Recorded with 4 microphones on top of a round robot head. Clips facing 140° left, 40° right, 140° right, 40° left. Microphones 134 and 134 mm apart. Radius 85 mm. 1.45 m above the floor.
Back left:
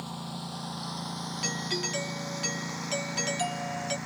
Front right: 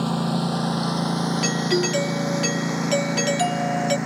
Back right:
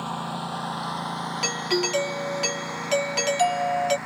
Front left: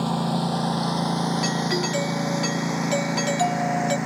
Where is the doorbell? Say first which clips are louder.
Front right 11 dB, front left 2 dB; 65° right.